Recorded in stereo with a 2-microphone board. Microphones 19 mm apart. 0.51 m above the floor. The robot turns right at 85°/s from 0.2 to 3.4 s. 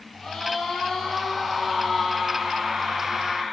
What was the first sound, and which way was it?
A scream, 30° left.